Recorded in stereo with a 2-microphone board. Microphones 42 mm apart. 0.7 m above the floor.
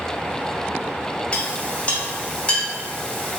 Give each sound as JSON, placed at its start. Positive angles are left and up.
{"t": 1.3, "sound": "a clink", "side_deg": 30, "distance_m": 1.6}